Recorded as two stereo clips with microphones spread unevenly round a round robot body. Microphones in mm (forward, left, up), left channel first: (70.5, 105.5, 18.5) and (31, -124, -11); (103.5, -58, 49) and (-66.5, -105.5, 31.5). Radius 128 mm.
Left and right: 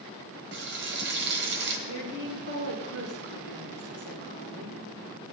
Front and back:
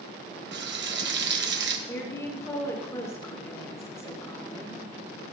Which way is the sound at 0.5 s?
150° right.